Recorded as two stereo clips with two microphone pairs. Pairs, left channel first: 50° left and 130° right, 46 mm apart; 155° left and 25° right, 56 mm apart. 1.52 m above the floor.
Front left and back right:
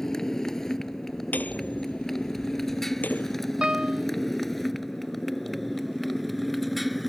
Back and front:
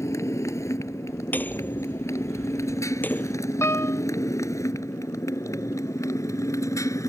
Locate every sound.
0.0 s a motorcycle: 130° left; by 7.1 s 140° left
1.3 s hammering: 100° left
3.6 s a piano: 165° left